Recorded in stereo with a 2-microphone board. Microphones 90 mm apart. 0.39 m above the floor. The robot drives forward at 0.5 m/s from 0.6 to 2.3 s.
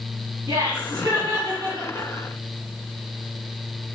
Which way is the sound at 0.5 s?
60° right (ahead or behind).